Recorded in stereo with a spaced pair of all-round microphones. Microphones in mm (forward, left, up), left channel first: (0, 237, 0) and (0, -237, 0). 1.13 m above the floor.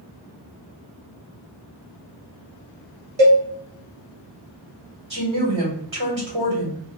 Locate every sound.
3.2 s a cowbell: 65° right (ahead or behind), 0.8 m
5.1 s a woman speaking: 70° right (ahead or behind), 1.6 m